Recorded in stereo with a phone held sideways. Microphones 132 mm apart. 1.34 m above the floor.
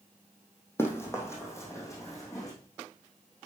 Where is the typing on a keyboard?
I don't hear typing on a keyboard.